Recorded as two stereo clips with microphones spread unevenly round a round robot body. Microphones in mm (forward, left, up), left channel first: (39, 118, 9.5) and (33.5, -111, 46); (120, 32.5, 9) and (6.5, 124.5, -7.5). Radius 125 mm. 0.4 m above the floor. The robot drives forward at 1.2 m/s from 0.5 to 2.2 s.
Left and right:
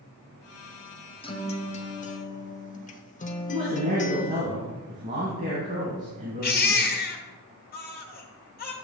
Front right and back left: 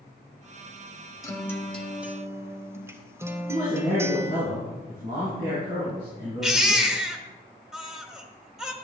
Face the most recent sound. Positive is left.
turn(degrees=55)